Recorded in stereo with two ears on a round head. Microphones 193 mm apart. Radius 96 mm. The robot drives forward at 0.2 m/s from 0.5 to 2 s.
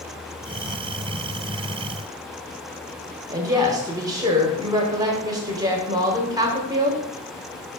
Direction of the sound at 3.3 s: 15° right (ahead or behind).